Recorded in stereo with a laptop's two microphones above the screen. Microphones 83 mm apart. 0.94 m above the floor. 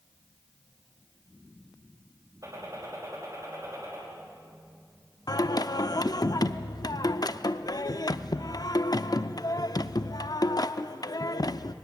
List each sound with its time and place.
2.4 s a gunshot: 40° right (ahead or behind), 5.5 m
5.3 s singing: 50° left (ahead or behind), 0.6 m